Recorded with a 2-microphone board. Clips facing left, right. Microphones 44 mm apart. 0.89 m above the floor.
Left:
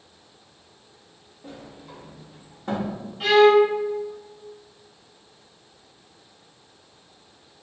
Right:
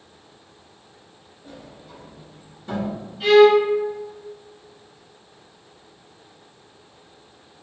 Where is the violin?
45° left (ahead or behind), 1.4 m.